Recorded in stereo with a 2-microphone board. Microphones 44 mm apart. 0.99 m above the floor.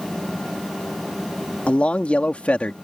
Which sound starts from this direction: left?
A man speaking, at 1.7 s.